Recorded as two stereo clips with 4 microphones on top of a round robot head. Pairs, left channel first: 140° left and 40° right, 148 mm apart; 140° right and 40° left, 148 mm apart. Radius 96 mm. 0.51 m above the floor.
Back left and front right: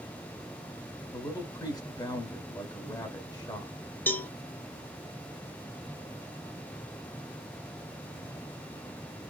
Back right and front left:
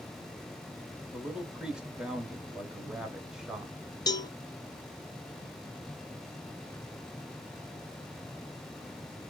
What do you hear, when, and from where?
1.1 s a man speaking: 120° left, 1.3 m
4.1 s a cowbell: 160° right, 0.6 m